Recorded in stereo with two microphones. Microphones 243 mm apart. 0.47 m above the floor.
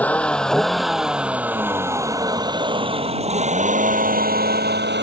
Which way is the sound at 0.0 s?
5° left (ahead or behind).